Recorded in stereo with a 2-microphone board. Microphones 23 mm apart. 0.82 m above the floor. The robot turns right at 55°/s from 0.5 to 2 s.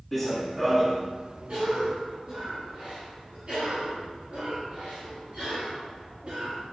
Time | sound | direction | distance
0.1 | running footsteps | centre (ahead or behind) | 2.5 m
1.5 | a cough | 70° right (ahead or behind) | 2.5 m